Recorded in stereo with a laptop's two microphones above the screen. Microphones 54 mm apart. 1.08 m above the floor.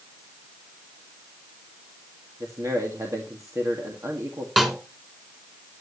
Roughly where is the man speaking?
Right.